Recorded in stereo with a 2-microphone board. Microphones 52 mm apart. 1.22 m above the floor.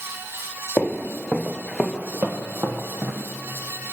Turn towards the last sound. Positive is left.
turn(degrees=-55)  # may be behind; listen again after turning